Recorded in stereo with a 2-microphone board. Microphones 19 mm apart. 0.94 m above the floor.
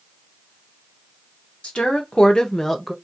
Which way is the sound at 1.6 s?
65° left (ahead or behind).